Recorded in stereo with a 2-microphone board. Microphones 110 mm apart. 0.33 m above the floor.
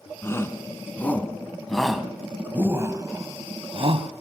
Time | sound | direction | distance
0.2 | a shout | 25° left (ahead or behind) | 3 m